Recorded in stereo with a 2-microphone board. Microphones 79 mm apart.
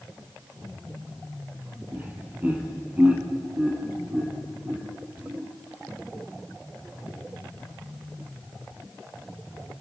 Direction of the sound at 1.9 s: 20° right (ahead or behind).